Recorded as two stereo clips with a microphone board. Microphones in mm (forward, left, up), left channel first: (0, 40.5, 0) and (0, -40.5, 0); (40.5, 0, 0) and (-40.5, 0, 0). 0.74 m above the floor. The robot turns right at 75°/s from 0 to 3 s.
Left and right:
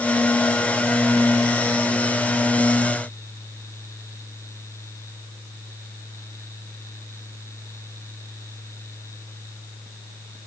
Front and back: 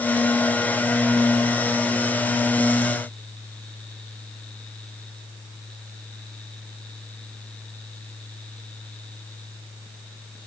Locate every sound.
Only background noise.